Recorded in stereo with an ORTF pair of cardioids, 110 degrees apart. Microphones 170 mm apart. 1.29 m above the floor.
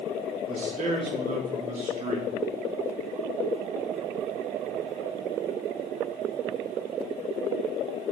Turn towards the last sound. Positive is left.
turn(degrees=-45)